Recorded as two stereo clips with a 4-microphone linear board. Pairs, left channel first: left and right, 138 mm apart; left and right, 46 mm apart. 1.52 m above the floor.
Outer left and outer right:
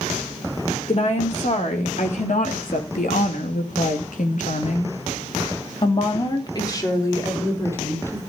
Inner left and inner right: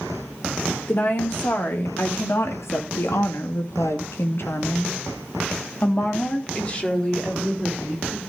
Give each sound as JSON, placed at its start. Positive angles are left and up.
{"t": 0.9, "sound": "a woman speaking", "side_deg": 50, "distance_m": 3.5}